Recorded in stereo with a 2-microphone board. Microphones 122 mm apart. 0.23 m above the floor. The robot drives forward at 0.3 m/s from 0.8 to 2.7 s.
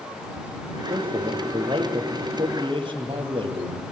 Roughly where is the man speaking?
Right.